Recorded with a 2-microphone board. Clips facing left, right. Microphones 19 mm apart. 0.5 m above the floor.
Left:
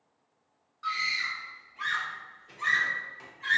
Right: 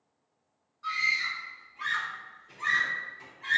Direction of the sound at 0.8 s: 35° left (ahead or behind).